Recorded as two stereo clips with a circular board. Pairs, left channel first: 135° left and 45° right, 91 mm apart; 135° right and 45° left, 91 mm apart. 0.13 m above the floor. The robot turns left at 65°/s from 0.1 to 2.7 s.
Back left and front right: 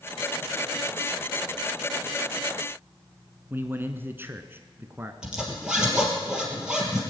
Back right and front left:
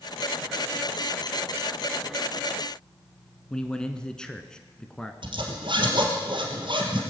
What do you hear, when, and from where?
3.5 s a man speaking: 65° right, 1.1 m
5.2 s a zipper: 35° left, 3 m